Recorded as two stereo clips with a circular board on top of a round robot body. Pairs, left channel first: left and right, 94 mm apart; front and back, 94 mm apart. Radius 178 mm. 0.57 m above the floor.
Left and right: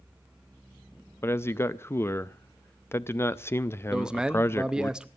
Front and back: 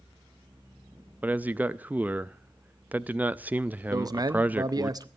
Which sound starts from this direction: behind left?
A man speaking, at 1.2 s.